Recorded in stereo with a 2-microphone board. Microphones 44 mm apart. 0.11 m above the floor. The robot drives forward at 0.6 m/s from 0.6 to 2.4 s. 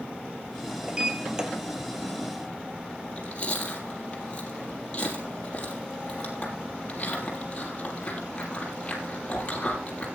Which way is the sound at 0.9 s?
20° right (ahead or behind).